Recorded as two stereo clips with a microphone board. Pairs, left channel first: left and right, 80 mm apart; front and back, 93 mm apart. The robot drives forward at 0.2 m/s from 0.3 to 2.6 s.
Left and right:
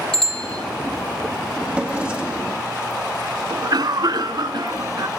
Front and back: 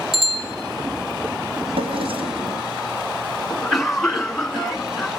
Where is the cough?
85° right, 2.0 m.